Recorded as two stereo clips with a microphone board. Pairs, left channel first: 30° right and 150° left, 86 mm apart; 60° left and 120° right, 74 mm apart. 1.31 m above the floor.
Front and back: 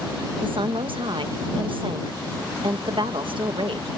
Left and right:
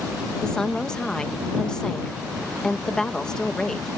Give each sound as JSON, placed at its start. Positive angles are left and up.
{"t": 0.4, "sound": "a woman speaking", "azimuth_deg": 140}